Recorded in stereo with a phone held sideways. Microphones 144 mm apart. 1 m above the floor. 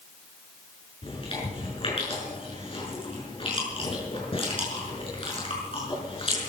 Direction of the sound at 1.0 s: 40° left (ahead or behind).